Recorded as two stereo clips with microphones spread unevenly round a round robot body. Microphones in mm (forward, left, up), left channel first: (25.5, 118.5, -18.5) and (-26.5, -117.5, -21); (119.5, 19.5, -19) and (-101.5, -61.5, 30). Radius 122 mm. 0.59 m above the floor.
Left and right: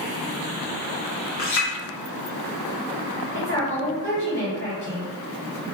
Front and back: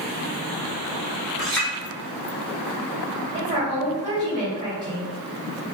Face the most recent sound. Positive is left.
turn(degrees=125)